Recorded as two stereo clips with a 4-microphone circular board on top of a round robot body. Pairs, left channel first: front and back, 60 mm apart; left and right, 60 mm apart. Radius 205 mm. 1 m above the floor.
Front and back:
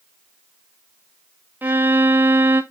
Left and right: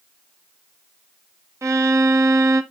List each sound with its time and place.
1.6 s a violin: 125° right, 1.1 m